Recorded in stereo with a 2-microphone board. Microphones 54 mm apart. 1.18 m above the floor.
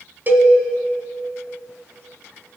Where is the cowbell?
35° right (ahead or behind), 1.4 m.